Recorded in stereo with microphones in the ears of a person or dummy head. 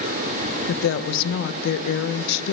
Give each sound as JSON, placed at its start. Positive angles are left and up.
{"t": 0.7, "sound": "a woman speaking", "side_deg": 70, "distance_m": 0.6}